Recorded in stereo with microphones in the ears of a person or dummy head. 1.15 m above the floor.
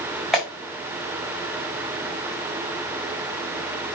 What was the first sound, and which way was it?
A clap, centre (ahead or behind).